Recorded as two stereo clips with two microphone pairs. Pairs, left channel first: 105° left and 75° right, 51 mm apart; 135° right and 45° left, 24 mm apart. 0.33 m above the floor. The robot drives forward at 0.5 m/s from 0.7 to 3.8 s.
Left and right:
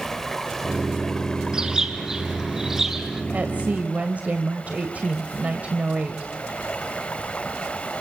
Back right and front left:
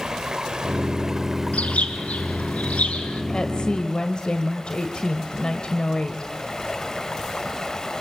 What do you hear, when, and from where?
0.0 s running water: 30° left, 1.1 m; by 8.0 s 165° left, 1.4 m
1.5 s a bird: 150° right, 2.5 m; by 3.2 s 155° right, 3.5 m
3.3 s a woman speaking: 105° right, 1.7 m; by 6.3 s 120° right, 1.8 m